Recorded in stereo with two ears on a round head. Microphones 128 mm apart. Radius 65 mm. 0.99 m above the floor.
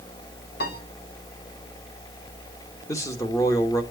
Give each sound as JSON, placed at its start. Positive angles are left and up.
{"t": 0.6, "sound": "a piano", "side_deg": 80, "distance_m": 3.5}
{"t": 2.9, "sound": "a man speaking", "side_deg": 20, "distance_m": 1.1}